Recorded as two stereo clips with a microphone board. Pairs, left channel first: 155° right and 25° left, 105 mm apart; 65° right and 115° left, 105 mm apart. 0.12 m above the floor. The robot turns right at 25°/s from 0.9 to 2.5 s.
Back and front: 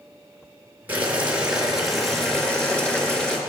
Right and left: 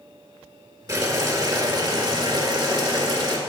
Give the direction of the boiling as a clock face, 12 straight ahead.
9 o'clock.